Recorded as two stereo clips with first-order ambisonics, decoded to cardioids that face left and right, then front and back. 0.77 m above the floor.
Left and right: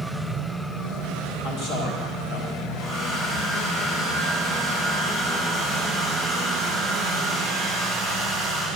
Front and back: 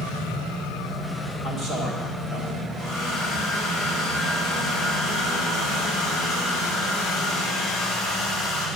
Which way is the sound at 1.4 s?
65° left.